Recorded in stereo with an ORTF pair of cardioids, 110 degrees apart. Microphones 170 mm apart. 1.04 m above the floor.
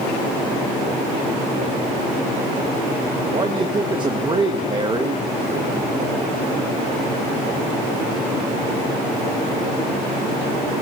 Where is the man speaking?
30° right, 0.8 m.